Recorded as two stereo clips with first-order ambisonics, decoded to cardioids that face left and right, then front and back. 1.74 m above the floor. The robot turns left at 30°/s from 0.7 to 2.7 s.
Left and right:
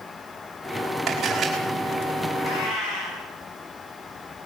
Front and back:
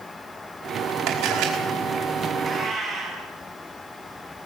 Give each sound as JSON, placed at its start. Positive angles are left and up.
{"t": 1.1, "sound": "a camera shutter", "azimuth_deg": -160, "distance_m": 5.0}
{"t": 2.4, "sound": "a cat meowing", "azimuth_deg": 100, "distance_m": 8.0}